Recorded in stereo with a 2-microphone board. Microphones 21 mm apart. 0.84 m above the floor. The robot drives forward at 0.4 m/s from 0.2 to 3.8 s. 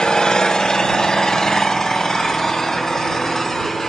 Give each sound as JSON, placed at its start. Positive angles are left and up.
{"t": 0.0, "sound": "an engine running", "side_deg": 40, "distance_m": 1.3}